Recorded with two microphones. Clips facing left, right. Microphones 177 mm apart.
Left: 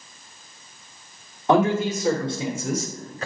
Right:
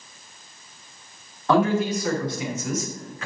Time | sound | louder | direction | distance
1.5 | a man speaking | left 1 dB | 20° left (ahead or behind) | 2 m